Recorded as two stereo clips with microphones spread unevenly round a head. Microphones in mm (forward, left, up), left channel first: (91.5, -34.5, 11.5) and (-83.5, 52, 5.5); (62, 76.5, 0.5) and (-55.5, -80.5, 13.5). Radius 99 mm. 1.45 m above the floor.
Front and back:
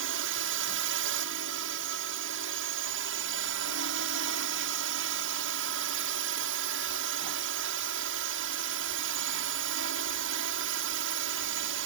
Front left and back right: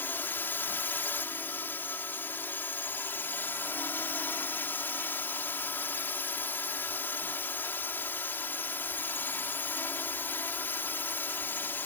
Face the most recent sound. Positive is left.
turn(degrees=135)